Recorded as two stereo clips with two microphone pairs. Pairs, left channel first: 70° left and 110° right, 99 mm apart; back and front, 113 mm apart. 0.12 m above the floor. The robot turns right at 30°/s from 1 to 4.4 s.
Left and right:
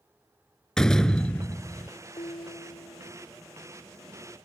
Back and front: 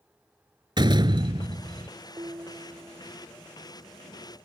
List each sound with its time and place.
0.8 s a door slam: 10° right; by 1.9 s 20° left
2.2 s dishes clattering: 50° left; by 3.2 s 80° left